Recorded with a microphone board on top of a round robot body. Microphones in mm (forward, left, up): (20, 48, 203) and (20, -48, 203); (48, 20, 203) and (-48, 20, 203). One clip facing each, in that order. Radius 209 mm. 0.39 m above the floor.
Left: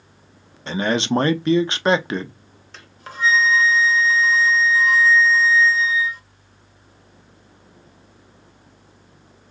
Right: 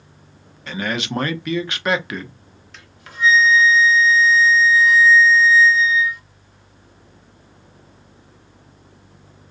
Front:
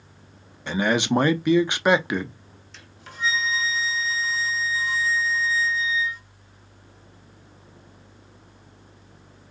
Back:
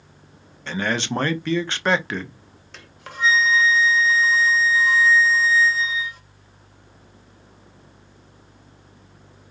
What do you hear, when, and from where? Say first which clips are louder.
0.7 s a man speaking: left 5 dB, front 3 dB; 65° left, 0.8 m
2.7 s a flute: right 1 dB, back 5 dB; 145° left, 0.8 m